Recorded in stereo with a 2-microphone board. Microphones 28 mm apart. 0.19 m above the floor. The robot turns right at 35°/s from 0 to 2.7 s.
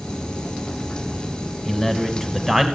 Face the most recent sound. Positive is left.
turn(degrees=-175)